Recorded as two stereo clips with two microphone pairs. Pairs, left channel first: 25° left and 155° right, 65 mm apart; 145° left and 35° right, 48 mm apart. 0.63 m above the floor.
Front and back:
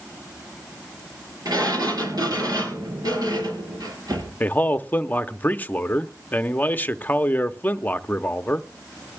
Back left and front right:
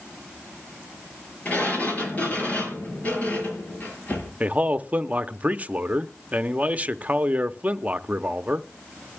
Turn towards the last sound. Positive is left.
turn(degrees=-10)